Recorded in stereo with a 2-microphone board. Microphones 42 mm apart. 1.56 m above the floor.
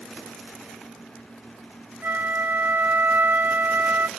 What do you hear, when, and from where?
2.0 s a flute: 60° right (ahead or behind), 0.6 m